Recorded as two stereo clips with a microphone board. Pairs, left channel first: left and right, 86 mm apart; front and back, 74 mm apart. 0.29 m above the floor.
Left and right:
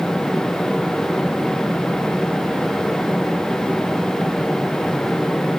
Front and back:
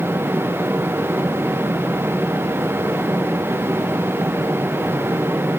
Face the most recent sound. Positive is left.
No sound to turn to.